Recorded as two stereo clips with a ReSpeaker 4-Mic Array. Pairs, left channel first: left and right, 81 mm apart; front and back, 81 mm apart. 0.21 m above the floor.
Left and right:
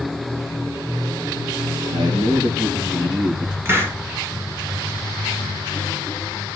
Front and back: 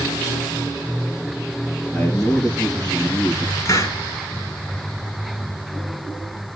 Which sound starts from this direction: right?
A man speaking, at 1.9 s.